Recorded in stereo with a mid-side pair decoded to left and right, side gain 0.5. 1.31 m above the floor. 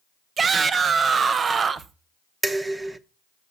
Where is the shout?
40° right, 0.9 m.